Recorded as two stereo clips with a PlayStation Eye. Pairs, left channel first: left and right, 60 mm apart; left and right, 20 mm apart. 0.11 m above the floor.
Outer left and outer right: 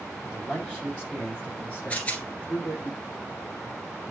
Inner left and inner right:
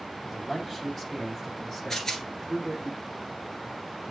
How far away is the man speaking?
About 4 m.